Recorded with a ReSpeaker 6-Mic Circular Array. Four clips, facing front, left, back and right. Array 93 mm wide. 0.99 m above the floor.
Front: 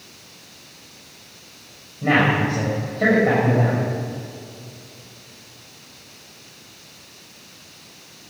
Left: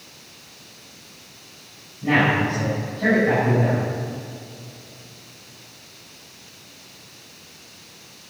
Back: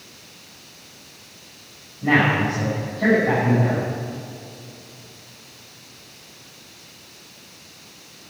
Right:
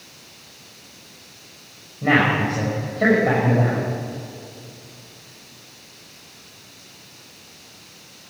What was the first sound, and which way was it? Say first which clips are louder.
A man speaking: right 1 dB, even; 55° right.